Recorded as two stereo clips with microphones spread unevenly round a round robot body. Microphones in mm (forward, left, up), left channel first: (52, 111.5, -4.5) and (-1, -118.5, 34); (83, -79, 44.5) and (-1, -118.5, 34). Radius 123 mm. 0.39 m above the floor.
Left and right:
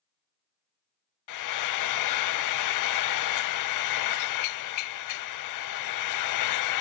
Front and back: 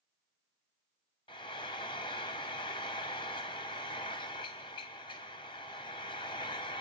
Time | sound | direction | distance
1.3 | frying | 90° left | 0.5 m